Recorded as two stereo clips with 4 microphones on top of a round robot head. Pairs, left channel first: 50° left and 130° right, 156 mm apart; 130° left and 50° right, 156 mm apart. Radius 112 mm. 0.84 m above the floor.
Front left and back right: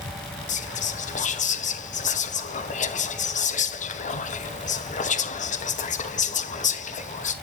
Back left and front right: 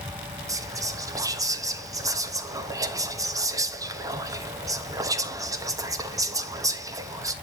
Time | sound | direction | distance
0.5 | whispering | 20° left | 1.0 m